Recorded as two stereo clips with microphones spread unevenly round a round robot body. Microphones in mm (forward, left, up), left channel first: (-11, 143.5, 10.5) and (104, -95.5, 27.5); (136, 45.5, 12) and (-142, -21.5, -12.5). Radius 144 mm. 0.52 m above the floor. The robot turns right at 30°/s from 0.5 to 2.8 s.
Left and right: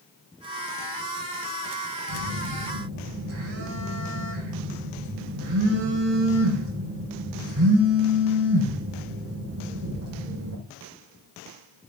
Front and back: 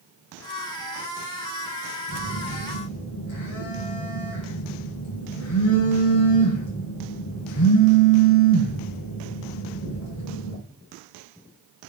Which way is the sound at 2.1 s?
50° right.